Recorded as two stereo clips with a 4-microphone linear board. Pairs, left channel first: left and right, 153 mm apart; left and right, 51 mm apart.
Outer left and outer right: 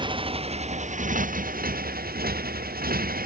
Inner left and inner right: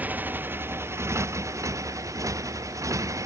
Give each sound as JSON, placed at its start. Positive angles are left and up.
{"t": 0.0, "sound": "a motorcycle", "side_deg": -35}